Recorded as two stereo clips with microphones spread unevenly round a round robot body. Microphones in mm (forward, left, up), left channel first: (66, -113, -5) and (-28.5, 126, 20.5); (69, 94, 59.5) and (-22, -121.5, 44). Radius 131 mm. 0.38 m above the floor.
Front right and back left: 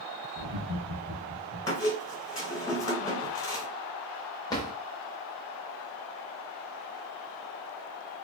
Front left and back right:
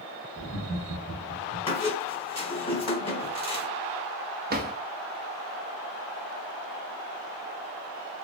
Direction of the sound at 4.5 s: 135° right.